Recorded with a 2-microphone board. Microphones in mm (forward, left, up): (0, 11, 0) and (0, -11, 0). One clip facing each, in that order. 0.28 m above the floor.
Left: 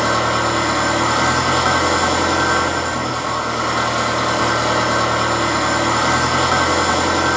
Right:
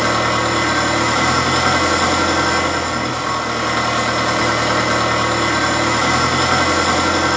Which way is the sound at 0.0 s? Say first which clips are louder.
Right 1 dB; 85° right.